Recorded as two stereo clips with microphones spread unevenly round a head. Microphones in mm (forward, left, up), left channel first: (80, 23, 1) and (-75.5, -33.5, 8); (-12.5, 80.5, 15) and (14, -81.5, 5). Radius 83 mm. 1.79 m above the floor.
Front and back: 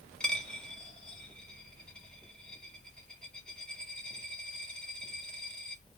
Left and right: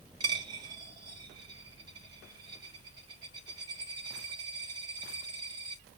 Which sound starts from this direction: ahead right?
A dropped coin, at 0.2 s.